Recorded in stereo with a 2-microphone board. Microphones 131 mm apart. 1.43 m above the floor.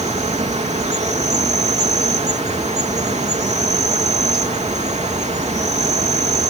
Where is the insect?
65° right (ahead or behind).